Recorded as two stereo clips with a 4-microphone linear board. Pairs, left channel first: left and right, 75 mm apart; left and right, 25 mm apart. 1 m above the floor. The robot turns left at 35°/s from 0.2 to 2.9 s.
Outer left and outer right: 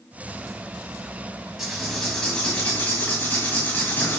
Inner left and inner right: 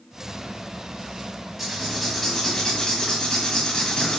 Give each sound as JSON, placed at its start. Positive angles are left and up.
{"t": 1.6, "sound": "writing", "azimuth_deg": -170, "distance_m": 1.2}